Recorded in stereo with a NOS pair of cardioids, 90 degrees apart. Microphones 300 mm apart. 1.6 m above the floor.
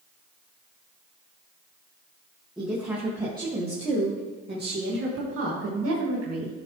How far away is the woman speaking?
About 2.5 m.